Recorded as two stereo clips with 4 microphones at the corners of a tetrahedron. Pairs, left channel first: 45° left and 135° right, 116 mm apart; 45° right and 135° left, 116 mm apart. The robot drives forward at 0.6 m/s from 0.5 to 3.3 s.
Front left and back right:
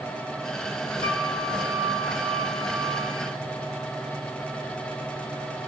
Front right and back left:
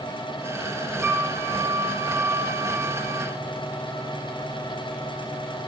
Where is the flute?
150° right, 6 m; by 3.3 s 155° right, 7.5 m.